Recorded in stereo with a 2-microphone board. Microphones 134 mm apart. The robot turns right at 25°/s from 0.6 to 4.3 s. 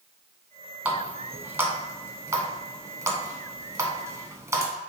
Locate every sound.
0.8 s a running tap: 10° right (ahead or behind), 0.8 m; by 4.7 s 20° right (ahead or behind), 0.8 m